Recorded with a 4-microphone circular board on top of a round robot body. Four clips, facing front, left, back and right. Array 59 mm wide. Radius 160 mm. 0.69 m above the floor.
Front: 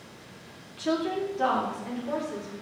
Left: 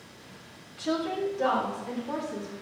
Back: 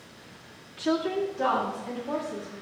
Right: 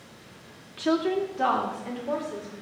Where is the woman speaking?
90° right, 1.5 m; by 2.5 s 70° right, 3 m.